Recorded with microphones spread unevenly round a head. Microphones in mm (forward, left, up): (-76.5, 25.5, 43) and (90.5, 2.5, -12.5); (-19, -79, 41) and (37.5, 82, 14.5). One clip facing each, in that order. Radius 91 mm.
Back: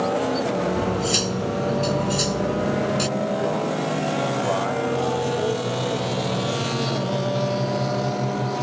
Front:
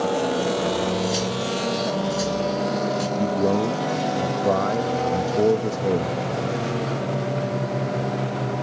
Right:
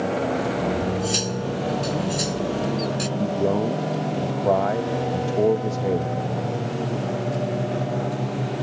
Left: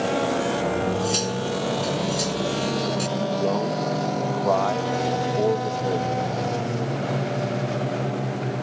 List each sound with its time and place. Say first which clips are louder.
0.8 s cutlery clinking: even, left 1 dB; 165° left
3.2 s a man speaking: front 2 dB, right 3 dB; 35° right